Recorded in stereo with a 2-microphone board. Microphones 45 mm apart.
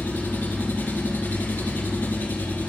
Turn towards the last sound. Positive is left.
turn(degrees=45)  # may be behind; listen again after turning